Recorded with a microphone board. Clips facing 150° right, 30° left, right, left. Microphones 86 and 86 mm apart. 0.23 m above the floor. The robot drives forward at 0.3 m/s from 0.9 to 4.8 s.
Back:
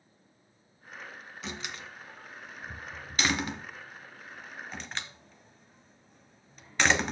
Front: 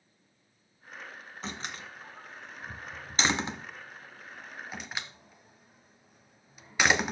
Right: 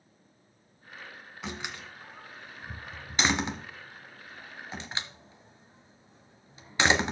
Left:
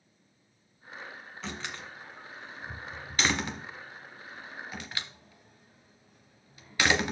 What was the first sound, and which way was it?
A door slam, 15° right.